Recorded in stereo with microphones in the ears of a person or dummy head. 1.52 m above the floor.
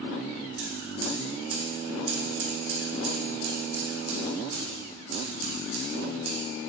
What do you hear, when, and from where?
0.6 s scissors: 80° right, 2.5 m